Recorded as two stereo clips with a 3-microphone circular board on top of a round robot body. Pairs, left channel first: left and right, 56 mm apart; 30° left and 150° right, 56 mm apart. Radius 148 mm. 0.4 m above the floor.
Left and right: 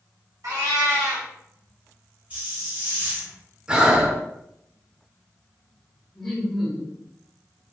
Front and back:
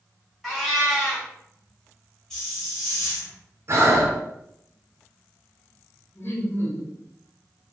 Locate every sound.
0.4 s a cat meowing: 55° right, 1.0 m
2.3 s a hiss: 50° right, 1.6 m
3.7 s breathing: 160° right, 0.7 m
6.2 s laughter: 5° left, 1.1 m